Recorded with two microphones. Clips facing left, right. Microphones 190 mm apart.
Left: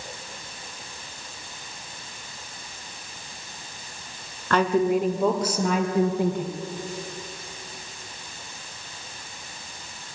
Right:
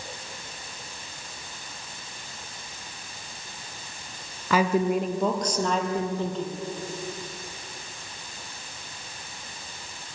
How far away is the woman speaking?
About 1.9 m.